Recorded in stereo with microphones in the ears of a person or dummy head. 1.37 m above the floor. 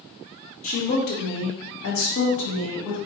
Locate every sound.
0.6 s a woman speaking: 40° left (ahead or behind), 1.0 m; by 3.0 s 85° left, 1.9 m